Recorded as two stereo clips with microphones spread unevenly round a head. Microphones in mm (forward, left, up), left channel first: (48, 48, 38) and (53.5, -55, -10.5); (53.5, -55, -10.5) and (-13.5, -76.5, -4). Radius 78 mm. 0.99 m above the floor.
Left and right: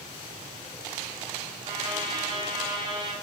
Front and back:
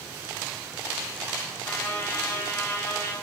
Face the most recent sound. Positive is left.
turn(degrees=-40)